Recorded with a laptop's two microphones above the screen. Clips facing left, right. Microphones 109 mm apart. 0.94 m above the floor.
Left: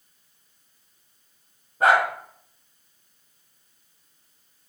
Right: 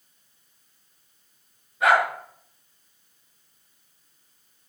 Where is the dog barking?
40° left (ahead or behind), 4.5 m.